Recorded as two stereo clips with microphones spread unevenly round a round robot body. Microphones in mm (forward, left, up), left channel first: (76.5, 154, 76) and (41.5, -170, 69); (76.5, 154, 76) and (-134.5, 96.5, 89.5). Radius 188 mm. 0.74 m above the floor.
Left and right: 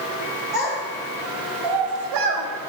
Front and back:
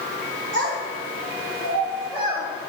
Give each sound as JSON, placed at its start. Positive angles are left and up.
{"t": 0.5, "sound": "a child speaking", "azimuth_deg": 175, "distance_m": 1.6}